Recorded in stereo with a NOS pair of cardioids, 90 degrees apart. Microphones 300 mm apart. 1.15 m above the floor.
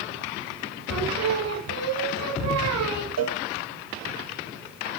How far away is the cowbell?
About 1.5 m.